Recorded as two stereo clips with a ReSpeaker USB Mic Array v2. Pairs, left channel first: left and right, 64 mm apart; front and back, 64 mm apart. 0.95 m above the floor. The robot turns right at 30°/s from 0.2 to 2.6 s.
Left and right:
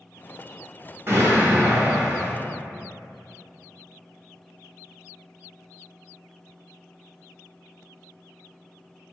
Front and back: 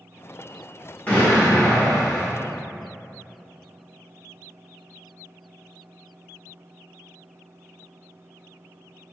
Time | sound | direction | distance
1.1 | an explosion | 55° right | 1.0 m